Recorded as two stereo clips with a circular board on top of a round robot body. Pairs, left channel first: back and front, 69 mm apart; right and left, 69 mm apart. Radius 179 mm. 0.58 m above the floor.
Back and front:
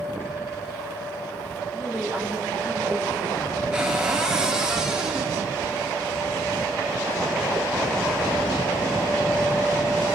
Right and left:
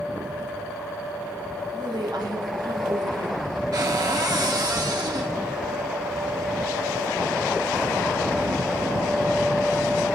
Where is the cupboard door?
80° left, 2.5 m.